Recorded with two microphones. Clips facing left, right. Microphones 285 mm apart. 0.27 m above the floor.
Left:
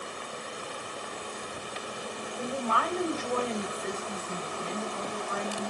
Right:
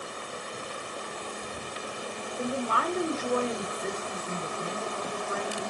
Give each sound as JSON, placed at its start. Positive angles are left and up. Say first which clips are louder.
{"t": 2.4, "sound": "a woman speaking", "louder": "right 2 dB", "side_deg": -25, "distance_m": 0.9}